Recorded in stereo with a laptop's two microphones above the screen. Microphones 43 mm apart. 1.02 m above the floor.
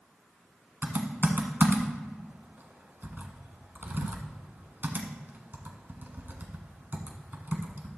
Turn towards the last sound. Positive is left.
turn(degrees=-45)  # may be behind; listen again after turning